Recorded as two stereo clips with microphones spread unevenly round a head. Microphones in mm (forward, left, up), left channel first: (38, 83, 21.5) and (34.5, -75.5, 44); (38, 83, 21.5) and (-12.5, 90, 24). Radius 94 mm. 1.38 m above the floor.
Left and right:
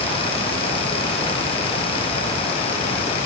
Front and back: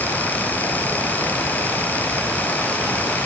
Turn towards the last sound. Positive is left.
No sound to turn to.